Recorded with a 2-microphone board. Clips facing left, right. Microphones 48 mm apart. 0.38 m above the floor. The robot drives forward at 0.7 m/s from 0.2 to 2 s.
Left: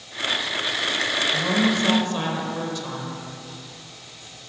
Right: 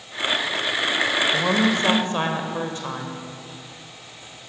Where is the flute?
I don't hear a flute.